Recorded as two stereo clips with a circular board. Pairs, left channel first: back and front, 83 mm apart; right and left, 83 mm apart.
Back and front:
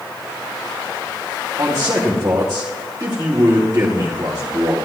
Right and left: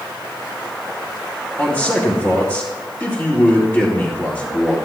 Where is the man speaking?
35° right, 1.9 m.